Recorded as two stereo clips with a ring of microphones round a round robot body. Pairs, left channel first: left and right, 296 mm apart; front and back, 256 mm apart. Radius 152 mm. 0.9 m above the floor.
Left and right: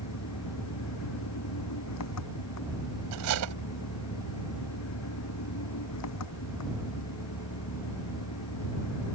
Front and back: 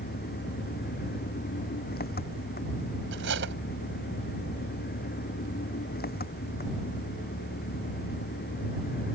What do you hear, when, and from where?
0.0 s an engine running: 55° left
3.1 s cutlery clinking: 125° right